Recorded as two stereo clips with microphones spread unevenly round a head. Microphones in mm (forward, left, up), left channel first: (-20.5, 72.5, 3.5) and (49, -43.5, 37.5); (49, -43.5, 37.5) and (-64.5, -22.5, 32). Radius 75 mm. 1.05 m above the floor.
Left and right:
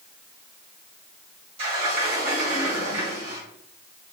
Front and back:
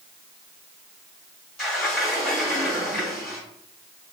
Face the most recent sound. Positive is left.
turn(degrees=-100)